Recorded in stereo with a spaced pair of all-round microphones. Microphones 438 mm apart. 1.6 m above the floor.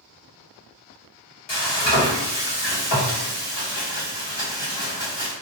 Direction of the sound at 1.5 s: 70° left (ahead or behind).